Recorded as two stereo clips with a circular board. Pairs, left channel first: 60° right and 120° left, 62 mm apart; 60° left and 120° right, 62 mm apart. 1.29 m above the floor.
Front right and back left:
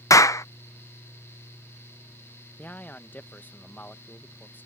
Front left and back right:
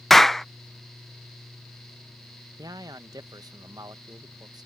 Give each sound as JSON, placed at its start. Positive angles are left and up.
{"t": 0.1, "sound": "a clap", "azimuth_deg": -25}
{"t": 2.6, "sound": "a man speaking", "azimuth_deg": -120}